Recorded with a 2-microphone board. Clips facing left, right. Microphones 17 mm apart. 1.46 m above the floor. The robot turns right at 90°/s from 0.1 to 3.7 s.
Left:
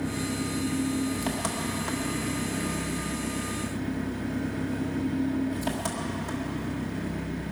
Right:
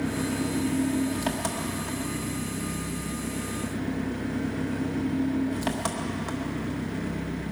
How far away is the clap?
No clap in this recording.